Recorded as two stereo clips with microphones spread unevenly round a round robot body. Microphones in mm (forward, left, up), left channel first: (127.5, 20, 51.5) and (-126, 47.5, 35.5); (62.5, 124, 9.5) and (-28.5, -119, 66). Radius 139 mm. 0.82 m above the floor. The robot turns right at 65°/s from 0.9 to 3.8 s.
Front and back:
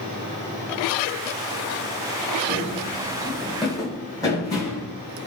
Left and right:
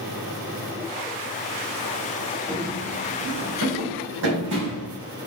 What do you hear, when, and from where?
2.5 s running footsteps: 160° right, 0.8 m; by 4.9 s 85° right, 3.5 m